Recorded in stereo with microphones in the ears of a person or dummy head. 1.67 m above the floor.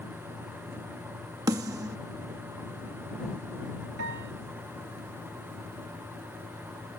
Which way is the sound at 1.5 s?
15° right (ahead or behind).